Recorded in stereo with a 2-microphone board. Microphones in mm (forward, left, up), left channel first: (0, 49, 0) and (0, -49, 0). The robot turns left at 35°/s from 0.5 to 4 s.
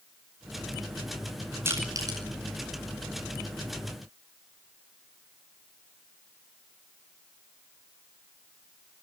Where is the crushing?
25° right (ahead or behind), 10 m; by 2.2 s 45° right (ahead or behind), 10 m.